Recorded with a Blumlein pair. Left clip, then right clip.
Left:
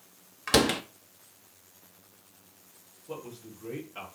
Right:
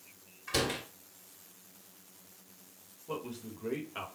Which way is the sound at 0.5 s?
40° left.